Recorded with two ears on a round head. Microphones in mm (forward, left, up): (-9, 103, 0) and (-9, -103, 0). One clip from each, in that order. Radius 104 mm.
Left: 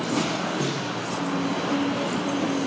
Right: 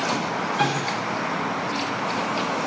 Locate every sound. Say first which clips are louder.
0.6 s a snare drum: right 5 dB; 10° left (ahead or behind), 6 m